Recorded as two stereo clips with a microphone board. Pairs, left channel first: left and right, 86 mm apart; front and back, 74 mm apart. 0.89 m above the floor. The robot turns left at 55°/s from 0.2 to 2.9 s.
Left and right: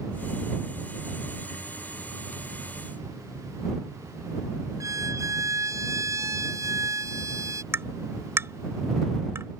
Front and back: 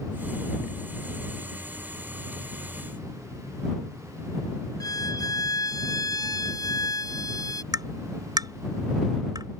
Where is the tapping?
150° right.